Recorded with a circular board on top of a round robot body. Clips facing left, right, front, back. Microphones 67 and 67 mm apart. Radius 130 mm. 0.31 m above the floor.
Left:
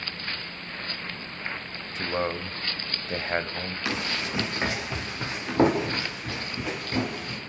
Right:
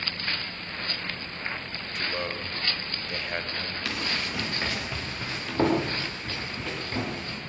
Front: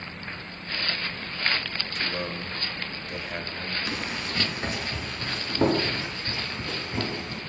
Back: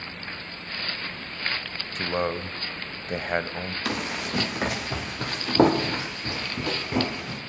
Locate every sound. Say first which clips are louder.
1.9 s a man speaking: left 4 dB, back 6 dB; 145° left, 2 m
3.9 s running footsteps: left 2 dB, back 2 dB; 160° left, 7 m; by 7.4 s 170° left, 8.5 m